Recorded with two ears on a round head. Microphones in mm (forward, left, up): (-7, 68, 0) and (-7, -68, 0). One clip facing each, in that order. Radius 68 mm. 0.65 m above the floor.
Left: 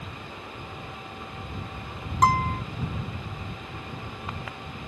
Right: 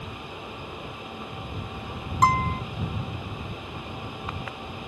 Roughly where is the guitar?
Centre.